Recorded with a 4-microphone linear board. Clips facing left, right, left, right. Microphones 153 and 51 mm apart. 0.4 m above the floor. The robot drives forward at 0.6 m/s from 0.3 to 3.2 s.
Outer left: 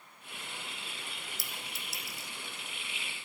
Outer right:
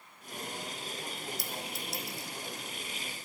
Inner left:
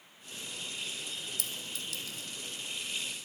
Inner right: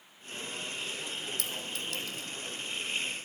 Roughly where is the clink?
Centre.